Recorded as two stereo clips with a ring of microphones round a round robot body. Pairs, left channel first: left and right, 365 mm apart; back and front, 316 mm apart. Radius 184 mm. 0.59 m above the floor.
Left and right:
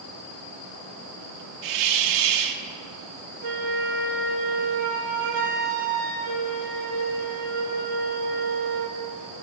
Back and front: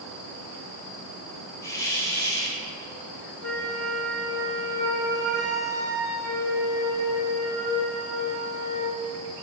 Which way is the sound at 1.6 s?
100° right.